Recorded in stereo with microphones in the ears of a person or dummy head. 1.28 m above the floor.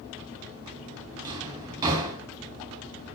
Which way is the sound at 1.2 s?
25° right (ahead or behind).